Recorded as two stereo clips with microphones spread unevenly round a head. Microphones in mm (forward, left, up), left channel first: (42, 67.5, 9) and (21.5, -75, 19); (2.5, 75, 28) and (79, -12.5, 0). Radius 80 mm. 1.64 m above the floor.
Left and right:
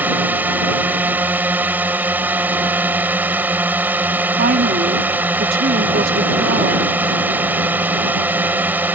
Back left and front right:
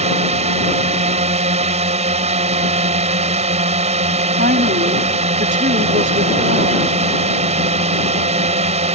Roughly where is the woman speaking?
Right.